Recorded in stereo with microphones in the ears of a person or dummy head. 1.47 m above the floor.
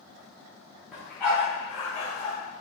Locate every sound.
0.9 s a dog barking: centre (ahead or behind), 1.2 m; by 2.4 s 45° left (ahead or behind), 2 m